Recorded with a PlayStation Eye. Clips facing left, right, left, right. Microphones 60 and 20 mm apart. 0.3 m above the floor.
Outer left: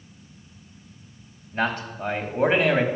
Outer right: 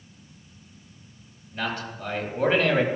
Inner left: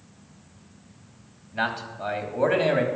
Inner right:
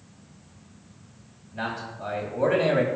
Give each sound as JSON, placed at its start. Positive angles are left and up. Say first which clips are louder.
{"t": 1.5, "sound": "a man speaking", "louder": "outer left 5 dB, inner left 4 dB", "side_deg": 45, "distance_m": 2.0}